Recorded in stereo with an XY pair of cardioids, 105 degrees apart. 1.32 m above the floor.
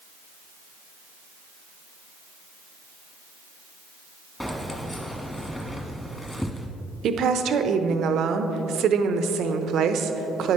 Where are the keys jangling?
10° left, 1.3 m.